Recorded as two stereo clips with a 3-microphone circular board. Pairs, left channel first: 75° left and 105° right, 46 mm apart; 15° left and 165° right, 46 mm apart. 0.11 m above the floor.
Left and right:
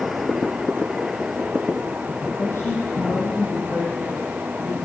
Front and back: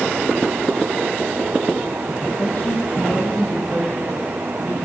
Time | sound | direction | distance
2.4 | a woman speaking | 60° left | 5 m